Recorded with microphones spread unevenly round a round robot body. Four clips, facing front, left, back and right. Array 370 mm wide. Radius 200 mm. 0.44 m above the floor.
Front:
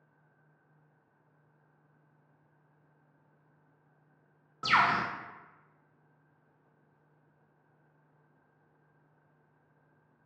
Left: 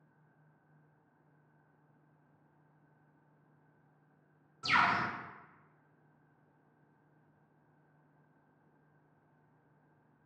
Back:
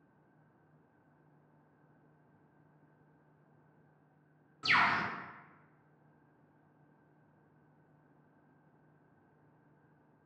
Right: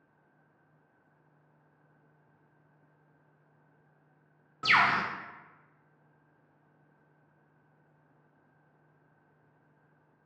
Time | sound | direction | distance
4.6 | a bird | 55° right | 0.6 m